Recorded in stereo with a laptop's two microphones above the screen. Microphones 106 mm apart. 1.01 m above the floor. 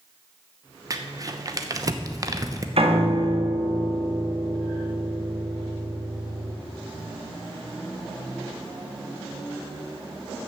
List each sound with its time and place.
0.9 s crumpling: 35° right (ahead or behind), 0.9 m
2.8 s a piano: 65° right (ahead or behind), 1.7 m